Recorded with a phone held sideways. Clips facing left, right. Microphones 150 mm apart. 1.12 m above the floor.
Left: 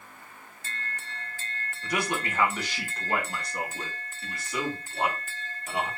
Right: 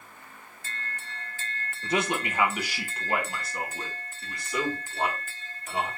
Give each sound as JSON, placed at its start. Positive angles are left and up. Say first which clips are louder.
{"t": 1.8, "sound": "a man speaking", "louder": "right 2 dB", "side_deg": -30, "distance_m": 0.6}